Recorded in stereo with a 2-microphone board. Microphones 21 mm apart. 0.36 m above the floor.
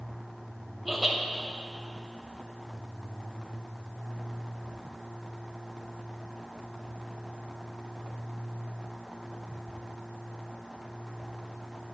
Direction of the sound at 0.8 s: Centre (ahead or behind).